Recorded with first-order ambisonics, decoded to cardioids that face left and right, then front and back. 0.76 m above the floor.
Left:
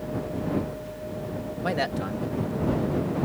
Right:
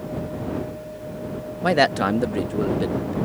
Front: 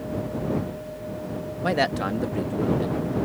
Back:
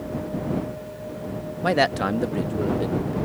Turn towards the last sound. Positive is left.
turn(degrees=-100)